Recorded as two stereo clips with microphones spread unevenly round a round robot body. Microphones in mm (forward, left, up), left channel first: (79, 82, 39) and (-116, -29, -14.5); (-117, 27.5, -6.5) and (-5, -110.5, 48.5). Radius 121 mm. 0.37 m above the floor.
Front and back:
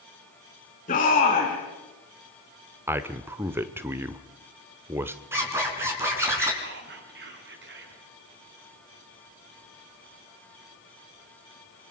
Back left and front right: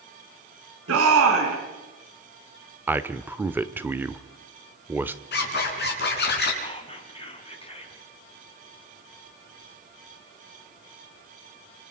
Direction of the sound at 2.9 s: 155° right.